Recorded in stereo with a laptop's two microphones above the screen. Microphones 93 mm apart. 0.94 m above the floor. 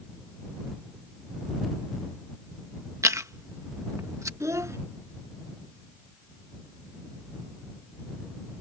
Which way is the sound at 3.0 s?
35° right (ahead or behind).